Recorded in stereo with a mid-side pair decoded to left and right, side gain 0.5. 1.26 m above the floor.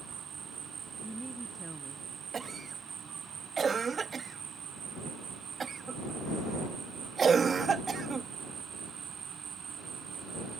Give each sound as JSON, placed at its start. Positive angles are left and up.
{"t": 0.0, "sound": "an insect", "azimuth_deg": -50}
{"t": 1.0, "sound": "a woman speaking", "azimuth_deg": -5}
{"t": 2.3, "sound": "a cough", "azimuth_deg": -35}